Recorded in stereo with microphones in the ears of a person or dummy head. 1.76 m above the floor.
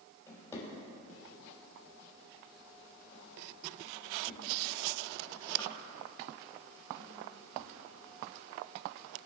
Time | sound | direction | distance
0.3 | a drawer | 10° left (ahead or behind) | 3 m